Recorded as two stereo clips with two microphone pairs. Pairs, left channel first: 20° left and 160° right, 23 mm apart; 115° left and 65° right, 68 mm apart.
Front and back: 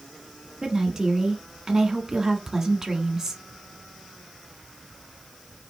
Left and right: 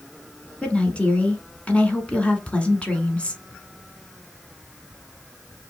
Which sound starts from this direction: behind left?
A woman speaking, at 0.6 s.